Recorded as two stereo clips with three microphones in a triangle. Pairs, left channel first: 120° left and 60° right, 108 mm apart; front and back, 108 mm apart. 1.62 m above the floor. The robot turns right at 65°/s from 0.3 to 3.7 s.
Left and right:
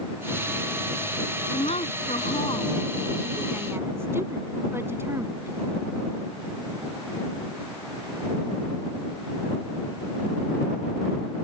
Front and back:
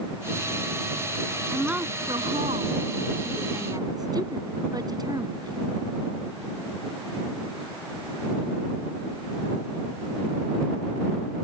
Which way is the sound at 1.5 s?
90° left.